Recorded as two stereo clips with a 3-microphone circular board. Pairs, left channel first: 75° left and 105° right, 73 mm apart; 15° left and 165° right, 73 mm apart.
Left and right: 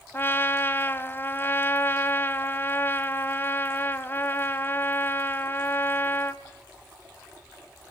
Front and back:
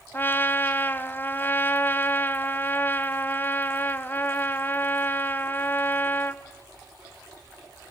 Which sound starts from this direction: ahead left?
A trumpet, at 0.1 s.